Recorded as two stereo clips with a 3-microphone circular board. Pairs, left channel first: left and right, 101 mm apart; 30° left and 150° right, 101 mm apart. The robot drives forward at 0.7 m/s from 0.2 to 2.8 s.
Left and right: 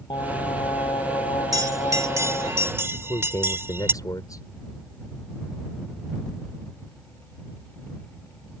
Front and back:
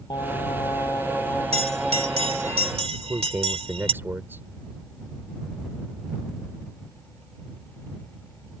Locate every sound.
0.1 s singing: 65° left; by 2.5 s 130° left
1.5 s a bell: 145° right; by 3.9 s 155° right
2.9 s a man speaking: 140° left